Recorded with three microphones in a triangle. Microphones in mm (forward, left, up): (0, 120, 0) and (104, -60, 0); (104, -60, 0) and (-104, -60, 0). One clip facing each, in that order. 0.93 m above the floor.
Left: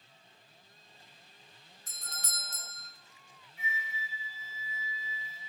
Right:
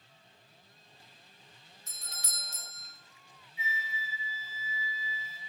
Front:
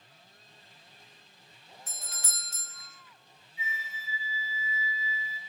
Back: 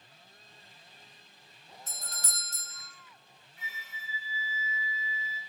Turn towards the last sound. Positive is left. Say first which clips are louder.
# right 1 dB, front 6 dB
turn(degrees=155)